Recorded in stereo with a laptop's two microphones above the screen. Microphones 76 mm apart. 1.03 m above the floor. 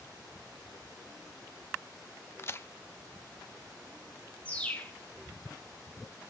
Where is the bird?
20° left (ahead or behind), 1.9 m.